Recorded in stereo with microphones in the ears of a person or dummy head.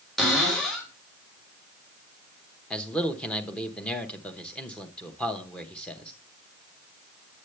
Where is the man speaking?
5° left (ahead or behind), 1.0 m.